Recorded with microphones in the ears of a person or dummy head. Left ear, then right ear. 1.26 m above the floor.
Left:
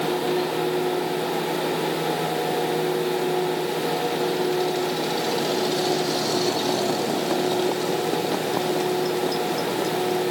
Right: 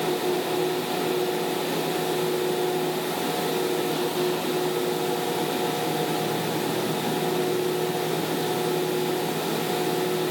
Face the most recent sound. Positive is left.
No sound to turn to.